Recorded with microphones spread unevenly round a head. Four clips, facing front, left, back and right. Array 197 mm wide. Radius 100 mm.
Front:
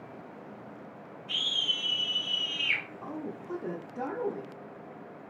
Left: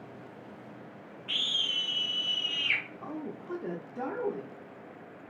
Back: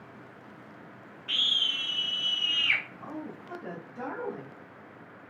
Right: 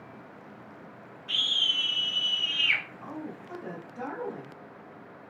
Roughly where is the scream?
Behind.